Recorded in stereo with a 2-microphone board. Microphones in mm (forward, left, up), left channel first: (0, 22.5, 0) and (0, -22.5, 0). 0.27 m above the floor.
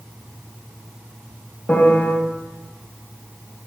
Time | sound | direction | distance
1.7 | a piano | 35° left (ahead or behind) | 0.9 m